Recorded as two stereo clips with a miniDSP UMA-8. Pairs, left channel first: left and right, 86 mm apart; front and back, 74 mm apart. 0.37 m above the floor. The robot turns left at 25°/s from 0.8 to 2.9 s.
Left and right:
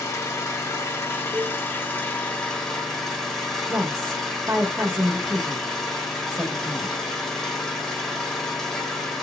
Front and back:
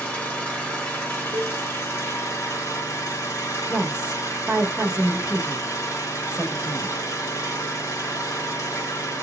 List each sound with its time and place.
0.0 s an engine running: 55° left, 1.1 m; by 9.2 s 5° left, 1.1 m
1.3 s a cowbell: 175° left, 0.6 m; by 1.6 s 170° left, 0.6 m
3.7 s a woman speaking: 125° right, 1.1 m